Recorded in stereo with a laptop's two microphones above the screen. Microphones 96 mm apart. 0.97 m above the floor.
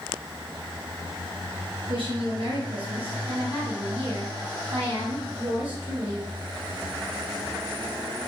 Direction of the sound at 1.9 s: 65° right (ahead or behind).